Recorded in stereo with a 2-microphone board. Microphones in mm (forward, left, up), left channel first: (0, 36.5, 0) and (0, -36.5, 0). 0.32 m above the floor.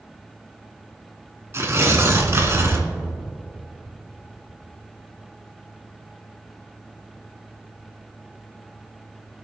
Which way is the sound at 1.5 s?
40° right (ahead or behind).